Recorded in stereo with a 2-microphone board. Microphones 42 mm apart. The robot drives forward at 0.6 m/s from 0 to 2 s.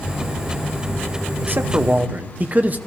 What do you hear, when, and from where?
1.4 s a man speaking: 55° right (ahead or behind), 0.8 m; by 2.8 s 40° right (ahead or behind), 1.0 m